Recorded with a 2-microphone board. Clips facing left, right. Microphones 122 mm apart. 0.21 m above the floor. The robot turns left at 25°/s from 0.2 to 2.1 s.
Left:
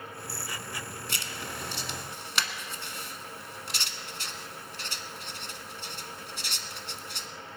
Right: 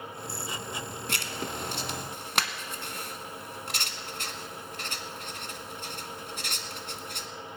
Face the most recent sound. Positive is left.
turn(degrees=-50)  # may be behind; listen again after turning